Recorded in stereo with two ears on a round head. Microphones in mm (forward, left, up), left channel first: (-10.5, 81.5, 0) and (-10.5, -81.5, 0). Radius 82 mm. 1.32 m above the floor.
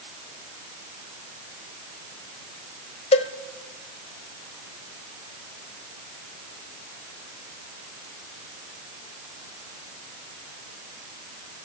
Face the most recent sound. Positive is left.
turn(degrees=35)  # may be behind; listen again after turning